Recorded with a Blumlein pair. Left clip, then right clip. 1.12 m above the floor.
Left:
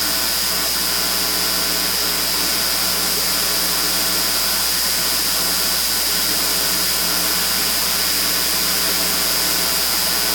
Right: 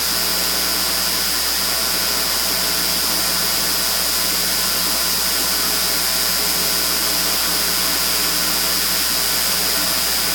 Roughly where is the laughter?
I don't hear laughter.